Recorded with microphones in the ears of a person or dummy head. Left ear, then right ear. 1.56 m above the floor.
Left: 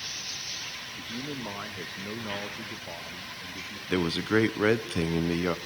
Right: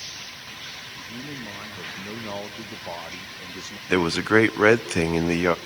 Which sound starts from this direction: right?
A man speaking, at 3.9 s.